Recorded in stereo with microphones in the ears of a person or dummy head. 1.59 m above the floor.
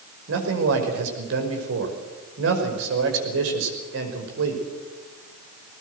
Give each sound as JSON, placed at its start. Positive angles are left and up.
{"t": 0.3, "sound": "a man speaking", "side_deg": -75, "distance_m": 5.5}